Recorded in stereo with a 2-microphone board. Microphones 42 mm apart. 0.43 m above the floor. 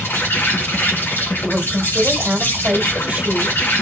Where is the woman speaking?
35° right (ahead or behind), 2 m.